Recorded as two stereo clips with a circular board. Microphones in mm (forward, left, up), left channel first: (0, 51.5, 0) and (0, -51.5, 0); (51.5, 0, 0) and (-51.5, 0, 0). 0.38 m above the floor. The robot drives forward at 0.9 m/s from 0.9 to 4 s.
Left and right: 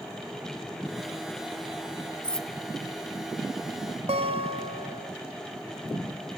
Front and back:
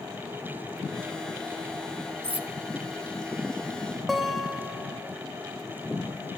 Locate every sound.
2.2 s cutlery clinking: 170° left, 0.8 m; by 2.5 s 175° left, 1.0 m
4.1 s a guitar: 90° right, 1.1 m